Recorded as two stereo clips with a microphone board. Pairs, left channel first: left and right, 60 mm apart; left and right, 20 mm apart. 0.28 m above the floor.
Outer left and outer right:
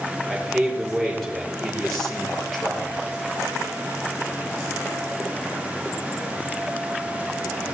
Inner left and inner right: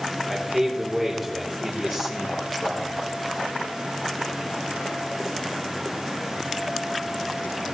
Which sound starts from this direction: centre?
A man speaking, at 0.3 s.